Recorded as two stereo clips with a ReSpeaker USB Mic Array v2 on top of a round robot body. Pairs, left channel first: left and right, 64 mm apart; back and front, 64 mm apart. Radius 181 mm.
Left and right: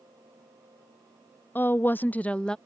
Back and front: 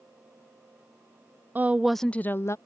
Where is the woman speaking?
45° left; by 2.6 s 165° left.